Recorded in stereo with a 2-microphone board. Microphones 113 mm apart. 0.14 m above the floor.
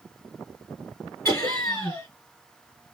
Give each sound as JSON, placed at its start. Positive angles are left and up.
{"t": 1.2, "sound": "laughter", "side_deg": 25, "distance_m": 2.0}